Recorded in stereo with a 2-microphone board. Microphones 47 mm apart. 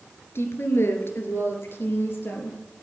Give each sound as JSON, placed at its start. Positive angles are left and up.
{"t": 0.3, "sound": "a woman speaking", "side_deg": 65, "distance_m": 2.5}